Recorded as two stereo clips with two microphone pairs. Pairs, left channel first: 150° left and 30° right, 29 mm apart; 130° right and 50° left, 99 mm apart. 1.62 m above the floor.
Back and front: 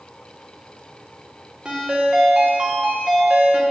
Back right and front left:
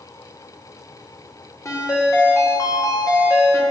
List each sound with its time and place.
1.6 s a ringtone: 80° right, 1.0 m